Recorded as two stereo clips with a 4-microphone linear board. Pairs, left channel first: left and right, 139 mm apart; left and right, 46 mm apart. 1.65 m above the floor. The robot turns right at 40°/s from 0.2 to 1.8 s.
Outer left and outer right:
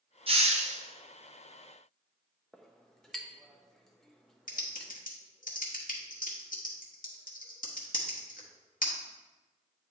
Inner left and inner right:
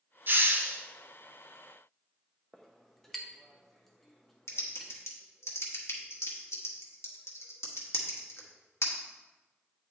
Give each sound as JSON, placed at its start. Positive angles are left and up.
{"t": 0.3, "sound": "a hiss", "side_deg": -40, "distance_m": 0.8}
{"t": 2.5, "sound": "a clink", "side_deg": 0, "distance_m": 0.6}
{"t": 4.5, "sound": "typing on a keyboard", "side_deg": 70, "distance_m": 1.1}